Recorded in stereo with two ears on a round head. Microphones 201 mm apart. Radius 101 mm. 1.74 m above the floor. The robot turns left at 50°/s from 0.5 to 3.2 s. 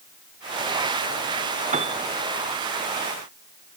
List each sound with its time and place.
1.7 s a piano: 30° right (ahead or behind); by 2.0 s 15° right (ahead or behind)